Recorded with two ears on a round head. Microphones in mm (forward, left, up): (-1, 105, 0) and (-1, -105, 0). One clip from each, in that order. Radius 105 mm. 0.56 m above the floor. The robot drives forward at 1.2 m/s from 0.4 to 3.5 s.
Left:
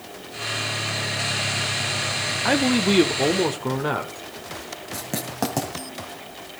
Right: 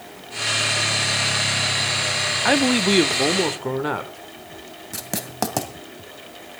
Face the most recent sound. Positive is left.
turn(degrees=-25)  # may be behind; listen again after turning